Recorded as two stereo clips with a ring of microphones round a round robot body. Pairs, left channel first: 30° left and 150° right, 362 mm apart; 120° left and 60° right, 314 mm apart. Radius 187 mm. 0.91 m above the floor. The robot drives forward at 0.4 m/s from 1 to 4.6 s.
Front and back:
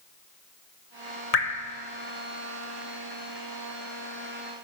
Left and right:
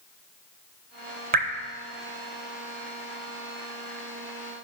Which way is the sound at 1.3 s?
10° right.